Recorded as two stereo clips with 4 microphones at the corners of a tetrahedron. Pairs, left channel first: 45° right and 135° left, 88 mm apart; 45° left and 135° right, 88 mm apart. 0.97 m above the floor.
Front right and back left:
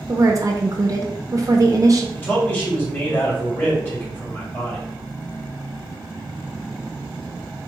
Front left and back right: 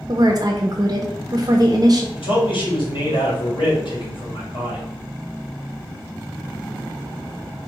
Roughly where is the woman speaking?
Behind.